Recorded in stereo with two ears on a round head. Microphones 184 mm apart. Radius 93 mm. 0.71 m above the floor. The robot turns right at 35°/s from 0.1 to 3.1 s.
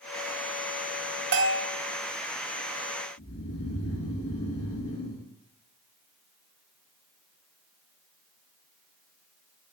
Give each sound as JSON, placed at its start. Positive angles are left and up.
{"t": 1.3, "sound": "a bell", "side_deg": -55, "distance_m": 0.8}
{"t": 3.2, "sound": "snoring", "side_deg": 85, "distance_m": 3.5}